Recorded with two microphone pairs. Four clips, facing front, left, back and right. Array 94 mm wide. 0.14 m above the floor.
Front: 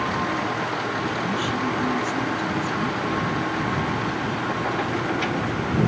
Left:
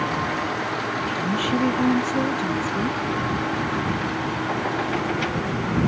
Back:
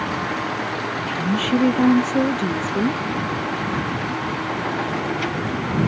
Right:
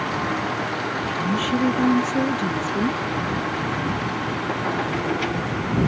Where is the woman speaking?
170° left; by 3.0 s 170° right.